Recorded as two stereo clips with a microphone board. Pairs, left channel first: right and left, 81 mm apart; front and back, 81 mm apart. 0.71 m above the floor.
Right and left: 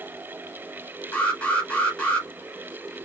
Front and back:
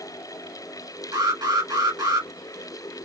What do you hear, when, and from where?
1.1 s an alarm: 160° right, 2.5 m